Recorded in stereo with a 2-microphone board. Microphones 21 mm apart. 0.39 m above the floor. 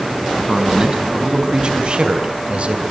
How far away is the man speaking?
About 3.5 m.